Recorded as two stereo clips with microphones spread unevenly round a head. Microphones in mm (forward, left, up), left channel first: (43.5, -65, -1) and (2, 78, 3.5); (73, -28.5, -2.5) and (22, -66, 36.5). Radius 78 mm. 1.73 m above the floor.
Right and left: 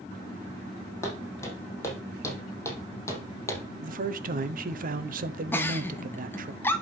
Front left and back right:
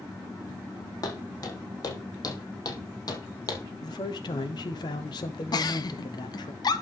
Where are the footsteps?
5° right, 4 m.